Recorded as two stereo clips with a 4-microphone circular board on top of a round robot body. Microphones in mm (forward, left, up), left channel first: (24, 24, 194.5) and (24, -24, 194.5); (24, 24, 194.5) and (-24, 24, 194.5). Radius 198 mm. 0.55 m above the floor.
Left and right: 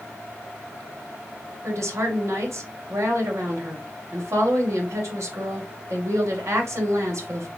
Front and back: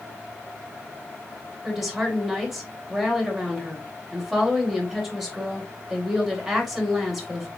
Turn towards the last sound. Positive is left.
turn(degrees=-100)